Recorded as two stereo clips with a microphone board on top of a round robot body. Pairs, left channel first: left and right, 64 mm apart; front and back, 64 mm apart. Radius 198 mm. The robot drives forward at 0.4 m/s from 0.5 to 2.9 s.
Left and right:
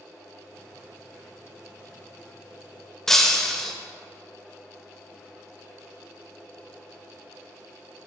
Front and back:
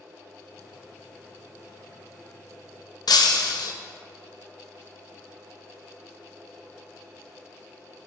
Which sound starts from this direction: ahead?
Breaking glass, at 3.1 s.